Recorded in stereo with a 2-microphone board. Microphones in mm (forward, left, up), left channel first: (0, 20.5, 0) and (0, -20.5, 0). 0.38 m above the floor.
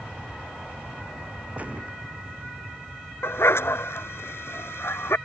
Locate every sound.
0.0 s an aircraft: 20° right (ahead or behind)
1.6 s a gunshot: 35° right (ahead or behind)
3.2 s a dog barking: 85° left